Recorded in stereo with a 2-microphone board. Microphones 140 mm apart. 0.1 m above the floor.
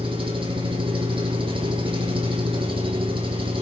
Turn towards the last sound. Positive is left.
turn(degrees=-40)  # may be behind; listen again after turning